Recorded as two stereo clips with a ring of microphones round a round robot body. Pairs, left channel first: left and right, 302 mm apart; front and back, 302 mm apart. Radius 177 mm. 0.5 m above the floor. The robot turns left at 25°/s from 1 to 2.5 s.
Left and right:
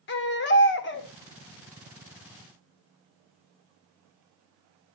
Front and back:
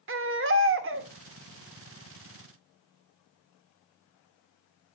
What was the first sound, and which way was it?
A baby crying, 140° left.